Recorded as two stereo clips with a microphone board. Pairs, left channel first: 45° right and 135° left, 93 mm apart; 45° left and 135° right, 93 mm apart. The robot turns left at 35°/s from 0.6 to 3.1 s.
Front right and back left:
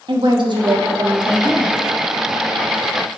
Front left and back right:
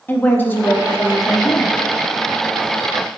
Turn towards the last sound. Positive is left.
turn(degrees=25)